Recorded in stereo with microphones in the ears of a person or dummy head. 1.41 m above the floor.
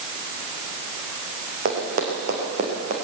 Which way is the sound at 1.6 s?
50° right (ahead or behind).